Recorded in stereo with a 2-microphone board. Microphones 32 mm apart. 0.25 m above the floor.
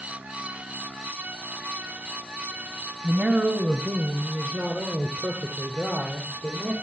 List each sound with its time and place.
3.0 s a man speaking: 50° right (ahead or behind), 1.4 m; by 6.7 s 55° right (ahead or behind), 5 m